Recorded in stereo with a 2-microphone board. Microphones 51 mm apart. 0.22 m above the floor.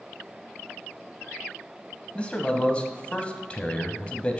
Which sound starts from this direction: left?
A man speaking, at 2.1 s.